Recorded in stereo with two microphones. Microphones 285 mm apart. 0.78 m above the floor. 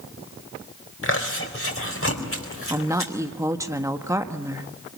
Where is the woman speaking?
10° right (ahead or behind), 1.2 m.